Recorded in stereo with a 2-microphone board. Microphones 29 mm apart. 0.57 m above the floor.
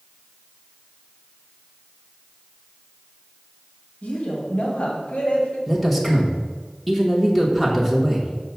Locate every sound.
4.0 s a woman speaking: 60° left (ahead or behind), 3.5 m
5.7 s a man speaking: centre (ahead or behind), 1.3 m